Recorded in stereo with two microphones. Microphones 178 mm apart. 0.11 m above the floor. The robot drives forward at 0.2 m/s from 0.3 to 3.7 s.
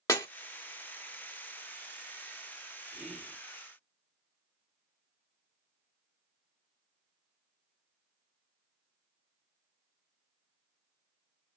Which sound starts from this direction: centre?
Whispering, at 2.9 s.